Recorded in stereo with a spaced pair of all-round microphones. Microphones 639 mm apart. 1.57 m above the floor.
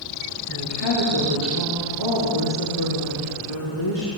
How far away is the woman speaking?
About 5 m.